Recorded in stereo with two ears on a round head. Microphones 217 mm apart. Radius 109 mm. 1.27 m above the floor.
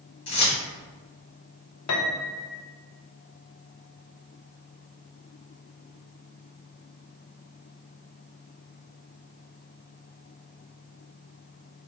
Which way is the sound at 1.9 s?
70° left (ahead or behind).